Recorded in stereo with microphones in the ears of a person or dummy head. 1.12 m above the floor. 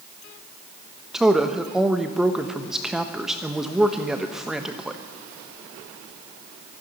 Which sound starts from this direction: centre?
A woman speaking, at 1.1 s.